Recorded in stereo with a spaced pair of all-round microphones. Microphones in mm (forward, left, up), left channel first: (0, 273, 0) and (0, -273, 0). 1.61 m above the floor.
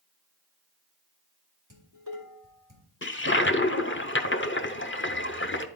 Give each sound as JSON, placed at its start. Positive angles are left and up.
{"t": 1.7, "sound": "dishes clattering", "side_deg": -35, "distance_m": 2.5}
{"t": 3.0, "sound": "a toilet flushing", "side_deg": 20, "distance_m": 0.6}